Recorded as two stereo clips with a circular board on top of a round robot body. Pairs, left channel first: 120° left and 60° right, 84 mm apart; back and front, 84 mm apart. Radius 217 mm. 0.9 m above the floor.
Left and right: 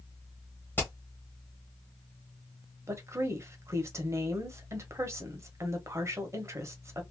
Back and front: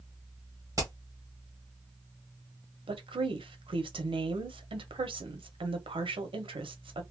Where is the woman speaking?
5° right, 0.8 m.